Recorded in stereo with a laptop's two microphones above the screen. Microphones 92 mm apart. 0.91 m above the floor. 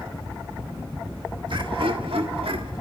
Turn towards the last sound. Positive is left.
turn(degrees=-80)